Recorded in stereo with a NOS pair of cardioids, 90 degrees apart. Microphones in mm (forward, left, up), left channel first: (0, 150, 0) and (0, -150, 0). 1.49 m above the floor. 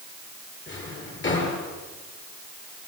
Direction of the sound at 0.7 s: 40° left.